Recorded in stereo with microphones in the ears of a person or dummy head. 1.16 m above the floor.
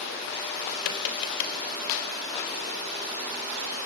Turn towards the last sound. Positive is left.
turn(degrees=85)